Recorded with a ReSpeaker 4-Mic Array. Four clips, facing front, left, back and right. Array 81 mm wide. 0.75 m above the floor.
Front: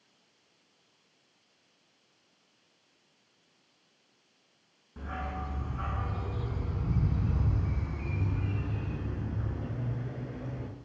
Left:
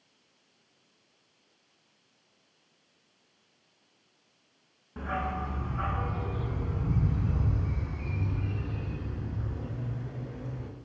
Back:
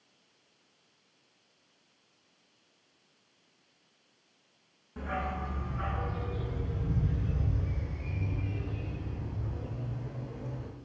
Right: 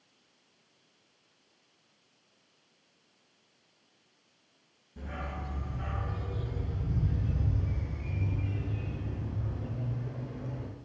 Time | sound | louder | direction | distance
5.0 | a dog barking | left 8 dB, back 3 dB | 100° left | 3 m